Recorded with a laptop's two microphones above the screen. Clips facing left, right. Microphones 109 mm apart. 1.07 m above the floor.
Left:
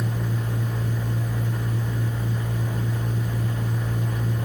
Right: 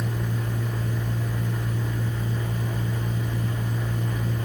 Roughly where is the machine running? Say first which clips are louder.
Left 1 dB; centre.